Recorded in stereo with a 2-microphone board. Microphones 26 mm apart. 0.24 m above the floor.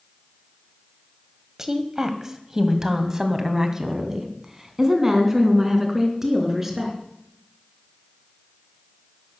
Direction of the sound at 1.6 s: 20° right (ahead or behind).